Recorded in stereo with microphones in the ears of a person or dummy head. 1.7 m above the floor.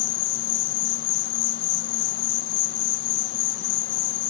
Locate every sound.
0.0 s an insect: 65° left (ahead or behind)